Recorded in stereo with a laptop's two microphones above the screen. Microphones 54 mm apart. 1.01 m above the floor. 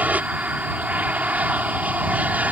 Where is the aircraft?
30° right (ahead or behind).